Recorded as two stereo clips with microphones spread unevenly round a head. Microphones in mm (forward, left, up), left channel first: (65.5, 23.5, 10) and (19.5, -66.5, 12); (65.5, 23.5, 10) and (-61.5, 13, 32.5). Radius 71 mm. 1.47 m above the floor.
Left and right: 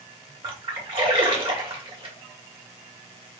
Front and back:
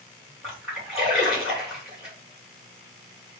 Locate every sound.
0.4 s a splash: 100° right, 1.6 m